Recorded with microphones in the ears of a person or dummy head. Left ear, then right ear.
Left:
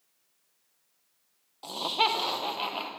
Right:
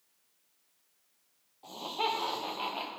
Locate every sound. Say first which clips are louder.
1.6 s laughter: left 6 dB; 60° left (ahead or behind), 1.1 m; by 2.9 s 10° left (ahead or behind), 2 m